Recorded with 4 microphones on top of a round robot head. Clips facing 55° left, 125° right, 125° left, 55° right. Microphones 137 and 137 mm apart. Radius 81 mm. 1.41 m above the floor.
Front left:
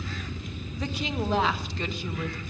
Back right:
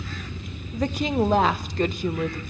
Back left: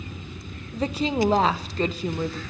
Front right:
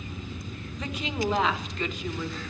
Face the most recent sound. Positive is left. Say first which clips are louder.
# back right 8 dB, back left 9 dB
turn(degrees=-175)